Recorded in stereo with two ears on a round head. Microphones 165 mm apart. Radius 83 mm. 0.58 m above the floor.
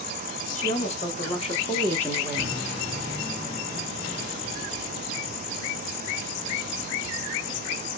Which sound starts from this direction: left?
A woman speaking, at 0.5 s.